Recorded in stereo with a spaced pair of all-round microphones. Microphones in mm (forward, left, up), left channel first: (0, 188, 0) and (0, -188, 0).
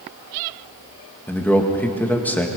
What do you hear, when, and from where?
1.3 s a man speaking: 5° left (ahead or behind), 1.9 m